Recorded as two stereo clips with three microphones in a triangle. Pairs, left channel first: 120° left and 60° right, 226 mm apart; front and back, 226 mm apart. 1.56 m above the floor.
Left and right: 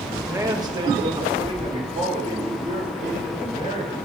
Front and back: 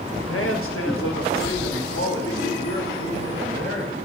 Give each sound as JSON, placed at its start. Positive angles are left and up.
{"t": 0.1, "sound": "a man speaking", "azimuth_deg": 20, "distance_m": 1.7}